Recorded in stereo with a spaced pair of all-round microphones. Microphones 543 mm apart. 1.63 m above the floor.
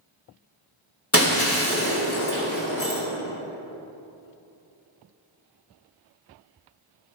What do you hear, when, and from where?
1.1 s breaking glass: 25° left (ahead or behind), 1.8 m